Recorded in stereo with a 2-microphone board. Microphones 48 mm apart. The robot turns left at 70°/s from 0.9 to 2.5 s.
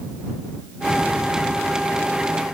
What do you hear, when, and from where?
Only background noise.